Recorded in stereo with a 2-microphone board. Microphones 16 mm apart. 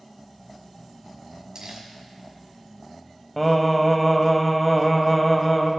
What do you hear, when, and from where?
1.6 s crumpling: 45° right (ahead or behind), 1.9 m
3.4 s singing: 10° left (ahead or behind), 0.7 m